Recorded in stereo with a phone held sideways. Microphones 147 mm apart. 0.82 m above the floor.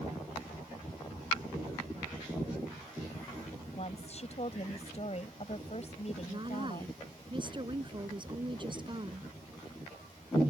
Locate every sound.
3.8 s a woman speaking: 45° left (ahead or behind)
6.3 s a woman speaking: 35° right (ahead or behind)